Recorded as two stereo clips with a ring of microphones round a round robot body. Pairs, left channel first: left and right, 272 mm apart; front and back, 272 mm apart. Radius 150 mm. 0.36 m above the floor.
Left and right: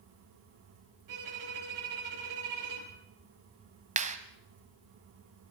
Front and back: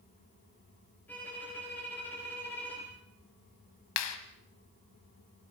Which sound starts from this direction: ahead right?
A clap, at 4.0 s.